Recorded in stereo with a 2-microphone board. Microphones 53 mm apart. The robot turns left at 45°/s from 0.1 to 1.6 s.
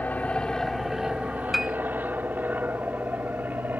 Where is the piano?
Centre (ahead or behind); by 1.8 s 5° right (ahead or behind).